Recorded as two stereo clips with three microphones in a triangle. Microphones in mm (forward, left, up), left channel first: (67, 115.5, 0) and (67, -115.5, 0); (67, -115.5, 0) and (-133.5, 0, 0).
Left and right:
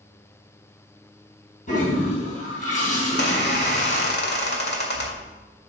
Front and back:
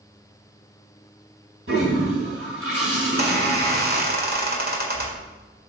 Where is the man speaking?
I don't hear a man speaking.